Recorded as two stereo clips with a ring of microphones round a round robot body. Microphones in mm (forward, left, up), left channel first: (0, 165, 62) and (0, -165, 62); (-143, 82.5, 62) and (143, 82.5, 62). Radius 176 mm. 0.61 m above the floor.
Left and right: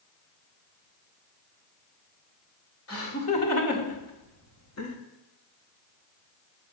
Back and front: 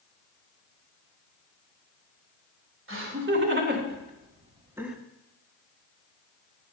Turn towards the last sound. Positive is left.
turn(degrees=90)